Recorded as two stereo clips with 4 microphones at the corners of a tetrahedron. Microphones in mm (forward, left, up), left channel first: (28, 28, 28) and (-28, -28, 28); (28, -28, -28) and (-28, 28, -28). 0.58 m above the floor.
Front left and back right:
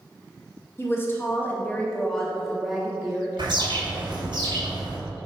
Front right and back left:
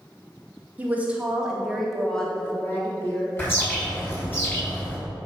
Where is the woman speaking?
80° left, 1.4 m; by 4.2 s 75° right, 1.7 m.